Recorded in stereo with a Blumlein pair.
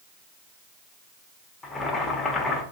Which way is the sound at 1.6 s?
15° left.